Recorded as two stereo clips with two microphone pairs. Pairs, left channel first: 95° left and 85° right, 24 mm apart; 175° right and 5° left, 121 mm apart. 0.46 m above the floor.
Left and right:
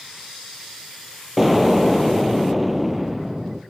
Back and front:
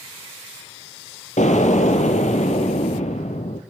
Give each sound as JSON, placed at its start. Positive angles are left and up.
{"t": 1.4, "sound": "an explosion", "azimuth_deg": -165, "distance_m": 2.0}